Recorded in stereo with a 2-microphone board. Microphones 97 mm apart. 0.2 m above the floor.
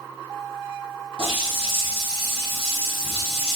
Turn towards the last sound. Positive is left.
turn(degrees=65)  # may be behind; listen again after turning